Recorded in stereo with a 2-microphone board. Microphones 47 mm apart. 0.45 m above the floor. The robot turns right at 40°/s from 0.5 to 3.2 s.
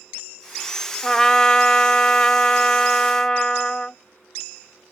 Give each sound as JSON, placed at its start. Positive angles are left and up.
{"t": 1.0, "sound": "a trumpet", "side_deg": 10}